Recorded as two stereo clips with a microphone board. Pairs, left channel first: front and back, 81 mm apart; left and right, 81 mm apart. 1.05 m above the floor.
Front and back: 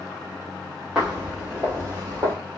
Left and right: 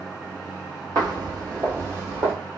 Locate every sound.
0.9 s footsteps: 105° right, 1.7 m; by 2.3 s 145° right, 1.7 m